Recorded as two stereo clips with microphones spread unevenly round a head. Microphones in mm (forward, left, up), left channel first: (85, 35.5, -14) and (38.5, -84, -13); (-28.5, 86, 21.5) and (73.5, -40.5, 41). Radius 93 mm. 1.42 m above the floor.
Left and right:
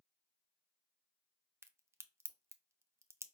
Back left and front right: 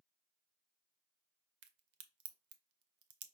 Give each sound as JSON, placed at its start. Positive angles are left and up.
{"t": 1.6, "sound": "a crack", "azimuth_deg": -40, "distance_m": 0.5}